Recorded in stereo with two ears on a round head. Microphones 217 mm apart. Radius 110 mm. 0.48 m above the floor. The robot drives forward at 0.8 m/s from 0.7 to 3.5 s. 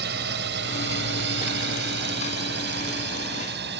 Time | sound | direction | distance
0.0 | a drone | 50° right (ahead or behind) | ?